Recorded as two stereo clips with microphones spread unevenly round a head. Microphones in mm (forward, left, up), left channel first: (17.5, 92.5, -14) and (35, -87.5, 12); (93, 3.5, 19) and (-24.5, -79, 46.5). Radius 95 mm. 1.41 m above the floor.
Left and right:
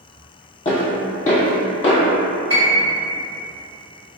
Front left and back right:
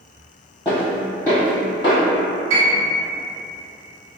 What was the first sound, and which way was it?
Footsteps, 140° left.